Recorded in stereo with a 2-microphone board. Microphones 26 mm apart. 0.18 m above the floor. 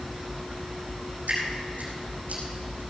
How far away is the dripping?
About 4.5 m.